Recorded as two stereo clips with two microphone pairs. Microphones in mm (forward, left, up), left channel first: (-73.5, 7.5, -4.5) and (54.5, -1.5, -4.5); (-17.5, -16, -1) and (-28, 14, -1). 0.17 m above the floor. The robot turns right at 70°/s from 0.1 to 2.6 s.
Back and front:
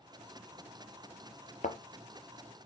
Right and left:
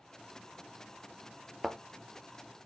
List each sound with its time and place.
1.6 s a thud: 175° right, 0.8 m; by 1.8 s 165° right, 0.8 m